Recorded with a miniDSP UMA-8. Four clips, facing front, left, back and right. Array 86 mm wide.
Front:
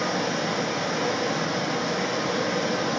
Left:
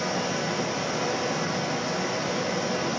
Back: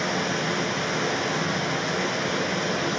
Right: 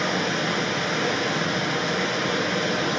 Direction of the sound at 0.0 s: 105° right.